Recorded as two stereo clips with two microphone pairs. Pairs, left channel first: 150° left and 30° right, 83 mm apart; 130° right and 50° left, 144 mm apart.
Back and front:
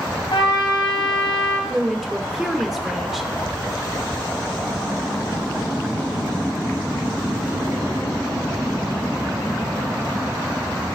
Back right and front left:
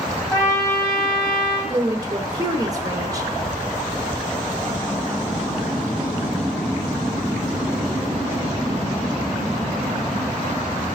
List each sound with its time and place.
0.3 s a trumpet: 160° left, 3 m
1.7 s a woman speaking: 45° left, 0.9 m